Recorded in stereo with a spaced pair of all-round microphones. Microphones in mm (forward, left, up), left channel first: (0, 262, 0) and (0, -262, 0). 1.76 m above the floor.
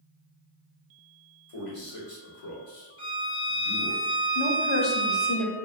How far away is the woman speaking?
About 0.7 m.